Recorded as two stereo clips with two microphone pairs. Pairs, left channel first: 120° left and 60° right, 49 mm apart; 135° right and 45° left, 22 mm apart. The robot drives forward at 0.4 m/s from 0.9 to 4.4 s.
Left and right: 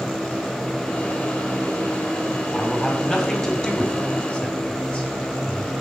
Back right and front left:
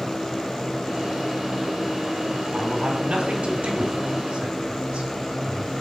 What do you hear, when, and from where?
2.5 s a man speaking: 45° left, 3.5 m; by 5.7 s 55° left, 3 m